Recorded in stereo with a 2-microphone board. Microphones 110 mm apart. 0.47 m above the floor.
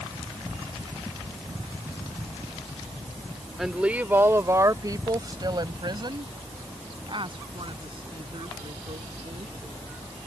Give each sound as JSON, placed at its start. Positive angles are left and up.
{"t": 3.6, "sound": "a woman speaking", "side_deg": 0}